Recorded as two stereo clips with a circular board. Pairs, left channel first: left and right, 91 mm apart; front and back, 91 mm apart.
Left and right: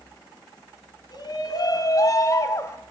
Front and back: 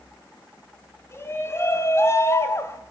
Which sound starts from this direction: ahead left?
A shout, at 1.1 s.